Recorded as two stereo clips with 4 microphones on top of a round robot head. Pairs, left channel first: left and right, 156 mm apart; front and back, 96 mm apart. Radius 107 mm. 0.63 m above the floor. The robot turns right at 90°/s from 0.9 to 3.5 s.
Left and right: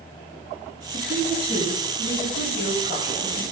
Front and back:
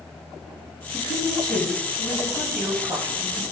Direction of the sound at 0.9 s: 60° right.